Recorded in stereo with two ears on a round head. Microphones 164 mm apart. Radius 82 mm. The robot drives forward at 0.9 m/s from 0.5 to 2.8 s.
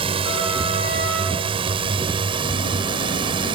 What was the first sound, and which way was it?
A drone, 30° right (ahead or behind).